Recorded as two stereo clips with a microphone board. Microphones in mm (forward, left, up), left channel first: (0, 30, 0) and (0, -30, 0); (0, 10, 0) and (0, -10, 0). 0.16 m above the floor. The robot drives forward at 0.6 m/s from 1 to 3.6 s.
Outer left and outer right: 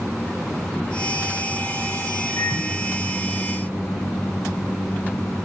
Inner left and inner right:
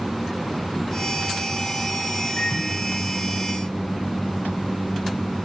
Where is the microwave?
70° left (ahead or behind), 10 m; by 5.4 s 75° left (ahead or behind), 9.5 m.